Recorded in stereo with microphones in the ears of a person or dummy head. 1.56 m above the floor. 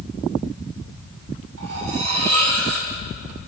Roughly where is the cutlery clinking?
Right.